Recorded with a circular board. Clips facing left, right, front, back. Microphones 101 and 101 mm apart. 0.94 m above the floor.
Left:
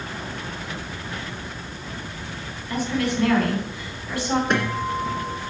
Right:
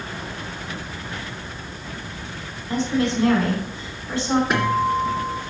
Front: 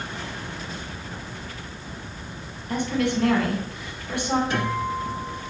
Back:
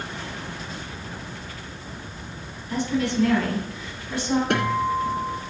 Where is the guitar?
175° right, 1.9 m.